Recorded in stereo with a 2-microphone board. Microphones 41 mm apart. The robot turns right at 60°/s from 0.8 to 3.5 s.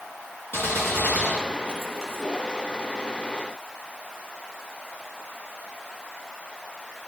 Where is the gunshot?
110° left, 3 m; by 2.2 s 165° right, 3 m.